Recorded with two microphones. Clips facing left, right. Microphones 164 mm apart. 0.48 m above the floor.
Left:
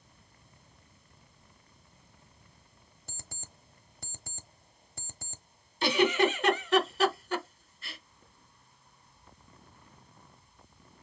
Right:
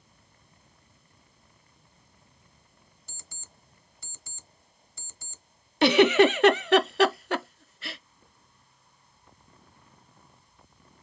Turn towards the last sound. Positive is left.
turn(degrees=-75)  # may be behind; listen again after turning